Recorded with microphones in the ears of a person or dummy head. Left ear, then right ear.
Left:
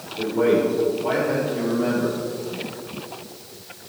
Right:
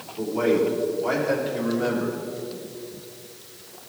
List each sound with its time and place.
0.2 s a man speaking: 70° right (ahead or behind), 3.5 m; by 2.2 s 75° right (ahead or behind), 2.5 m